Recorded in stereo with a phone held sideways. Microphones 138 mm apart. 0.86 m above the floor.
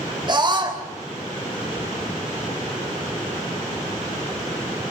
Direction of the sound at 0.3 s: 35° right (ahead or behind).